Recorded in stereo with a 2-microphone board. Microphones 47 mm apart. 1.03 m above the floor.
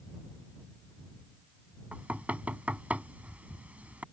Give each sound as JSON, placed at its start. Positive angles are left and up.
{"t": 1.9, "sound": "knocking", "side_deg": -30}